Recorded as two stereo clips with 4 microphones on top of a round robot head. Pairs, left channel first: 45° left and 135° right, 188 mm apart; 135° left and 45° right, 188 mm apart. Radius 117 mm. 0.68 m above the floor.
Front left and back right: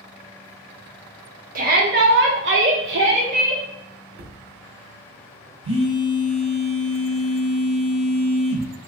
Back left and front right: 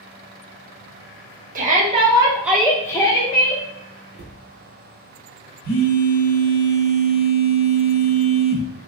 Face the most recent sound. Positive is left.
turn(degrees=165)